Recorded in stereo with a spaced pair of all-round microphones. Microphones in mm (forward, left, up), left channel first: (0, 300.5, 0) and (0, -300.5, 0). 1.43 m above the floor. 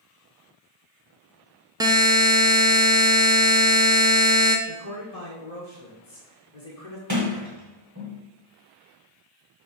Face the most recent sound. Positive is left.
turn(degrees=-30)  # may be behind; listen again after turning